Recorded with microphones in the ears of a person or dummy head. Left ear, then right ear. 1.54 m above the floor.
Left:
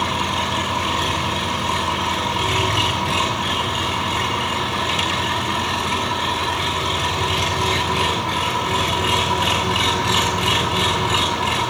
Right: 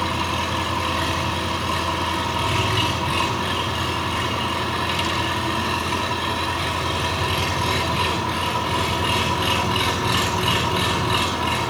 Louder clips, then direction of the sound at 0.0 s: Left 2 dB; 15° left (ahead or behind).